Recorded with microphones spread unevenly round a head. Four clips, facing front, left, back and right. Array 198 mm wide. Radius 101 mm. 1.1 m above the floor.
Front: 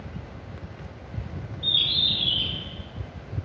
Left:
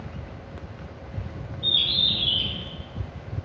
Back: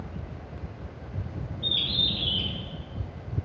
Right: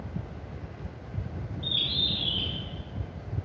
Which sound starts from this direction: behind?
A bird, at 1.6 s.